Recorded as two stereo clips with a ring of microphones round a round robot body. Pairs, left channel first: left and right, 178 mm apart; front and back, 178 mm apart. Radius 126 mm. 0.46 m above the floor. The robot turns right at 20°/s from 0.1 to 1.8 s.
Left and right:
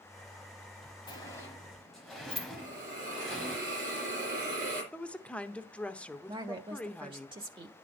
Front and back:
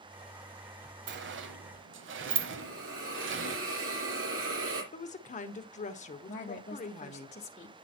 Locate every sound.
1.1 s a sliding door: 165° left, 1.1 m; by 3.6 s straight behind, 1.1 m
2.6 s a hiss: 150° right, 3.5 m
4.9 s a woman speaking: 10° left, 1.0 m
6.3 s a woman speaking: 40° right, 1.4 m